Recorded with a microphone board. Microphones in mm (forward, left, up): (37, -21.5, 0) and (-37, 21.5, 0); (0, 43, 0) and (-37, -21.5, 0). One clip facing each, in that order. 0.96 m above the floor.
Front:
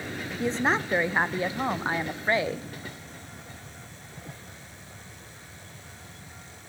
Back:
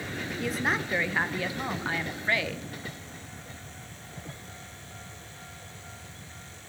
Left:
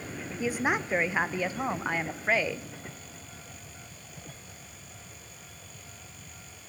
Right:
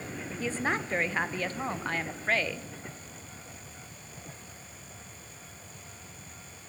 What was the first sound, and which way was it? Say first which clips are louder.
A woman speaking: front 4 dB, left 3 dB; 5° right.